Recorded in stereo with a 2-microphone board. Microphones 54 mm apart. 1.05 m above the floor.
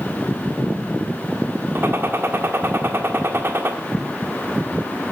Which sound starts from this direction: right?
A gunshot, at 1.8 s.